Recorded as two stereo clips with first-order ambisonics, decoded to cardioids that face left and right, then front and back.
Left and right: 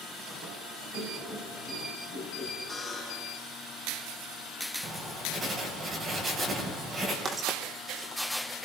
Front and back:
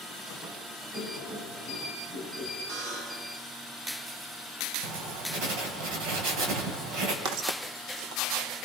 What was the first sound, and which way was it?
Laughter, 145° right.